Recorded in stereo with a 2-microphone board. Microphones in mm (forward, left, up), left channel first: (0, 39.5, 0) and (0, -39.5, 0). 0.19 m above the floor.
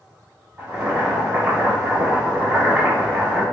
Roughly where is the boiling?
Right.